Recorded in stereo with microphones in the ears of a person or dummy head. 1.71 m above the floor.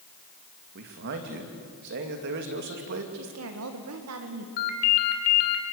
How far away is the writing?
No writing in this recording.